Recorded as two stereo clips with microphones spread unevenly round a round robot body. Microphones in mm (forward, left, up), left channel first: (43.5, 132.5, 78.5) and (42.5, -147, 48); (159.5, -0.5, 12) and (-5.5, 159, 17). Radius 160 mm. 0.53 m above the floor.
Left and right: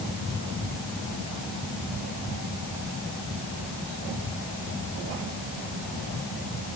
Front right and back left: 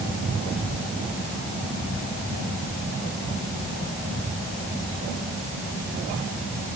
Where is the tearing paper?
I don't hear tearing paper.